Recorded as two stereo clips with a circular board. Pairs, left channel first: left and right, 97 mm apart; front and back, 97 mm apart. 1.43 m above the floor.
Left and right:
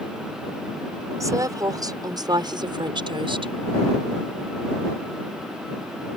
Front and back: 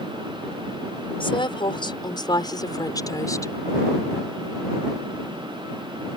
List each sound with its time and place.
1.2 s a woman speaking: 35° right; by 3.5 s 60° right